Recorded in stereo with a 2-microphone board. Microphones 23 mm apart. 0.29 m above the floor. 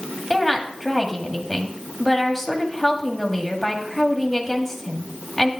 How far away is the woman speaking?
About 1.7 m.